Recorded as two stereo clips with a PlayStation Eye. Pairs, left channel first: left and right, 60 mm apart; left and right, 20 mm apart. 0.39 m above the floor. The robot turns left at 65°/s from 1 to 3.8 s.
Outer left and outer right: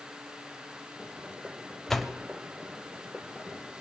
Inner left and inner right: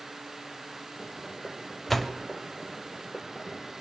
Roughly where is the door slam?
Centre.